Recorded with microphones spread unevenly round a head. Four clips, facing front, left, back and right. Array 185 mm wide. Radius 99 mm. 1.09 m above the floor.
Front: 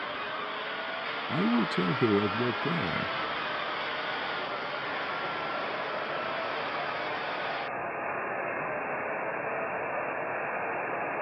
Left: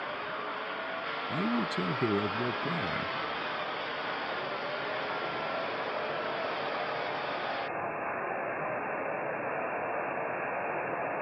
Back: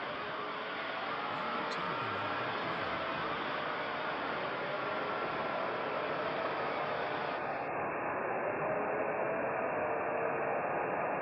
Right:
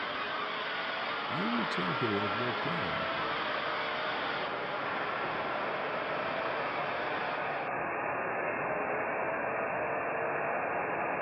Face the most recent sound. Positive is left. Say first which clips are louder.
# left 3 dB, front 9 dB
turn(degrees=15)